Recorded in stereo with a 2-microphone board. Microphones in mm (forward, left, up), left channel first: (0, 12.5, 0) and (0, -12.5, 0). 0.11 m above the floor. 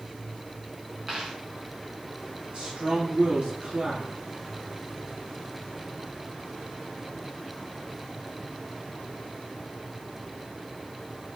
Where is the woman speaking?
50° right (ahead or behind), 3 m.